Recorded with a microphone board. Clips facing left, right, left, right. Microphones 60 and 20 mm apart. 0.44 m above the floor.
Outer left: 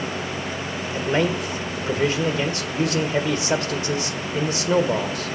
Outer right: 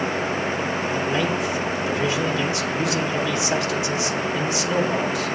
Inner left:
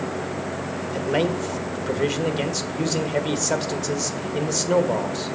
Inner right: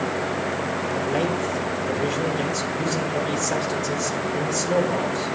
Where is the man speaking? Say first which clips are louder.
Outer left 4 dB, inner left 3 dB; 45° left (ahead or behind), 1.7 m.